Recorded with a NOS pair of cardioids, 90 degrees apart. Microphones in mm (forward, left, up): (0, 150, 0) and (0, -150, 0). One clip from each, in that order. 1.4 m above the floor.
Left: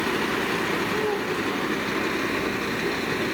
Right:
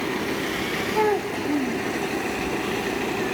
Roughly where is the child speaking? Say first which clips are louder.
Right 3 dB; ahead right.